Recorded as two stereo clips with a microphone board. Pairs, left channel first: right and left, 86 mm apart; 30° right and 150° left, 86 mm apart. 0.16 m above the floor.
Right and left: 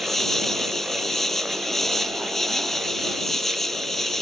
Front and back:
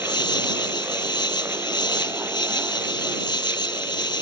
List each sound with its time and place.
0.0 s an insect: 5° right